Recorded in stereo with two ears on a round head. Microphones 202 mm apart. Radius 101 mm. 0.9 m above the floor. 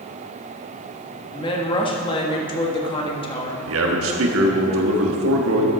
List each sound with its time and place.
1.3 s a woman speaking: 25° left (ahead or behind), 1.5 m
3.6 s a man speaking: 65° right (ahead or behind), 1.5 m